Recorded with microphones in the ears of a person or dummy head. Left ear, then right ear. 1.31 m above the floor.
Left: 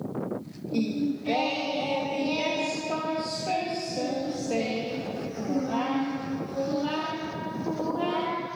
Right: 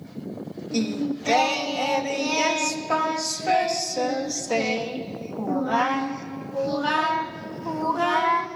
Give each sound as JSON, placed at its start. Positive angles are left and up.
{"t": 0.7, "sound": "singing", "side_deg": -60, "distance_m": 1.3}